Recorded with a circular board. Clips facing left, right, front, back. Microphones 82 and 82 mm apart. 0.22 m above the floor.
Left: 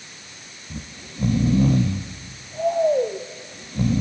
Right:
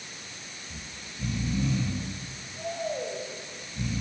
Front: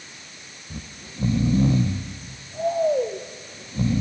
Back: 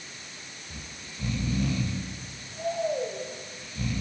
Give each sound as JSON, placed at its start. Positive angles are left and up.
{"t": 0.7, "sound": "snoring", "azimuth_deg": 60, "distance_m": 1.8}